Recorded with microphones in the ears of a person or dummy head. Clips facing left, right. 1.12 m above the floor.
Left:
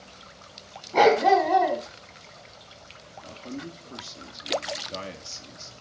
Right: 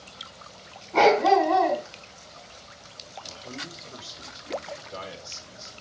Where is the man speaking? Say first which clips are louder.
Left 6 dB; 70° left (ahead or behind), 2.5 m.